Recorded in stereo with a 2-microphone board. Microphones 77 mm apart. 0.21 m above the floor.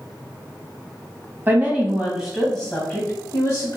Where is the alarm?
No alarm in this recording.